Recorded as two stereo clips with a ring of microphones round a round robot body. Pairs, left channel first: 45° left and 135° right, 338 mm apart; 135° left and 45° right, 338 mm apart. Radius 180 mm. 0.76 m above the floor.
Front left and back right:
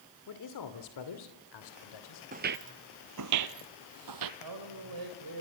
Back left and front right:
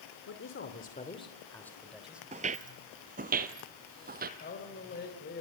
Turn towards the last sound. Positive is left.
turn(degrees=-165)